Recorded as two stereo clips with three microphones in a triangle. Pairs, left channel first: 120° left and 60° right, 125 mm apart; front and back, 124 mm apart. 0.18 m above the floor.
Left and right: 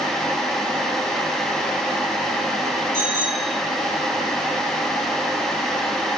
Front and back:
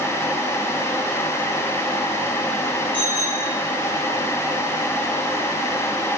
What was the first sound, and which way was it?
A bicycle bell, 130° left.